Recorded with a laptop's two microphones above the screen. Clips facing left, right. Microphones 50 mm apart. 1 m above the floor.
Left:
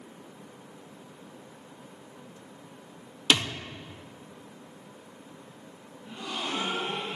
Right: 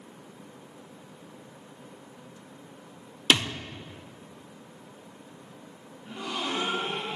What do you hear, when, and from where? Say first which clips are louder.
3.3 s a thud: right 1 dB; 25° right (ahead or behind), 0.7 m
6.0 s a gasp: right 2 dB; 65° right (ahead or behind), 2 m